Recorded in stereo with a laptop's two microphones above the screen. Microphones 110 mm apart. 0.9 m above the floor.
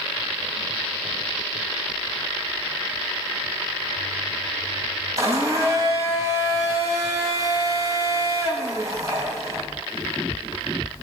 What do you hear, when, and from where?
5.2 s a blender: 30° right (ahead or behind), 3.5 m